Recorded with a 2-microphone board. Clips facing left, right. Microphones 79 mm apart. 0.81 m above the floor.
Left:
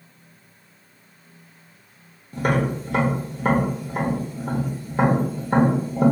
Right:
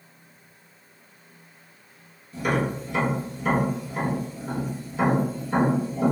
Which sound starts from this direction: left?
Tapping, at 2.3 s.